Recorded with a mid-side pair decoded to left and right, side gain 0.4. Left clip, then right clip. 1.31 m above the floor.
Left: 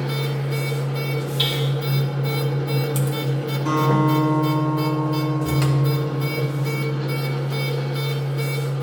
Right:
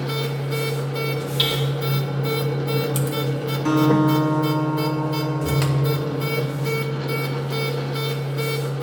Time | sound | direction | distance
0.0 | a machine running | 30° right | 1.1 m
1.4 | hammering | 45° right | 2.5 m
3.6 | a guitar | 65° right | 3.5 m